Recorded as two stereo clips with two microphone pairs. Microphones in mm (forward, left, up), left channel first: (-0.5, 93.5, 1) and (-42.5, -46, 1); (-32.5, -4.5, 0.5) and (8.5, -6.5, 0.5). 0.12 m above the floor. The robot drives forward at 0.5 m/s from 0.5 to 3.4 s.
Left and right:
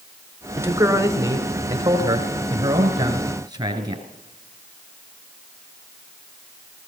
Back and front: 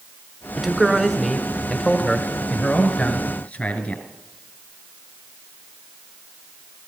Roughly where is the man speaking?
Right.